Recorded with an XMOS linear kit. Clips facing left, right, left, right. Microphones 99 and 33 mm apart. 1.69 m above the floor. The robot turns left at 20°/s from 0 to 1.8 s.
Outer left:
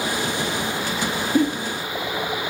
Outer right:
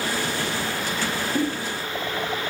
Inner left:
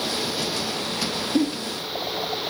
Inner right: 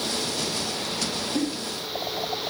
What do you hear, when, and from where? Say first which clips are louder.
1.4 s a giggle: outer left 6 dB, inner left 6 dB; 60° left (ahead or behind), 2.5 m; by 1.5 s 55° left (ahead or behind), 2.5 m